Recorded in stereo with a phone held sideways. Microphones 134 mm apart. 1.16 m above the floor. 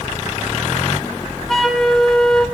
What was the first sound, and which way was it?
A flute, centre (ahead or behind).